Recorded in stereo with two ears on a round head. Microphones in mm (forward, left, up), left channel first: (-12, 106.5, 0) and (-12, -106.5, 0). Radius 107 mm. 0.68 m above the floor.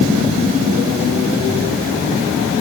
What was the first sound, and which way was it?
Only background noise.